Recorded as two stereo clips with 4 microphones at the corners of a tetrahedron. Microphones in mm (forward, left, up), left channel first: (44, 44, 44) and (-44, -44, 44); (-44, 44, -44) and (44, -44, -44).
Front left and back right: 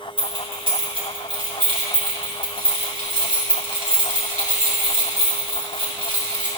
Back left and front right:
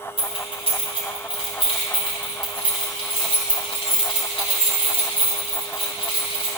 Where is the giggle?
I don't hear a giggle.